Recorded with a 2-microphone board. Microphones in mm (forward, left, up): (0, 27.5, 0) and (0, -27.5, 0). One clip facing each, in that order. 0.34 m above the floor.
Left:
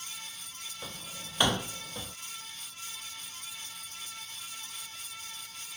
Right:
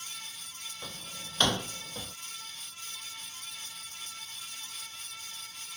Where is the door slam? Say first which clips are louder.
Left 1 dB; 10° left (ahead or behind).